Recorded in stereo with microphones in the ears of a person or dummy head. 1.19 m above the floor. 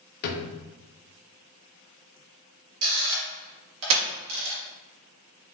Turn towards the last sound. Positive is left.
turn(degrees=-70)  # may be behind; listen again after turning